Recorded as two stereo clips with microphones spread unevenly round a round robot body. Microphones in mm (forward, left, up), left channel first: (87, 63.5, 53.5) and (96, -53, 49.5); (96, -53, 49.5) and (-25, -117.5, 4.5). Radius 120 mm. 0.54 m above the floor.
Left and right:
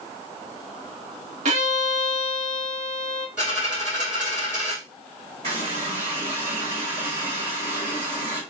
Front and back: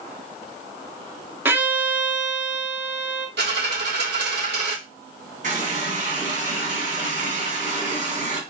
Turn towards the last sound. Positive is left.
turn(degrees=-140)